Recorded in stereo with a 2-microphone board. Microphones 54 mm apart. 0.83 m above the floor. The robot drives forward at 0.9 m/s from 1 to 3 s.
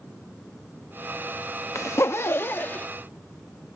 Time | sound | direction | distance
1.8 | a zipper | 55° left (ahead or behind) | ?